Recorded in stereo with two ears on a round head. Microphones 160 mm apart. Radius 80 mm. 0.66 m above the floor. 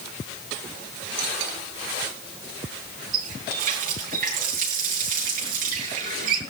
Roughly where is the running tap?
Right.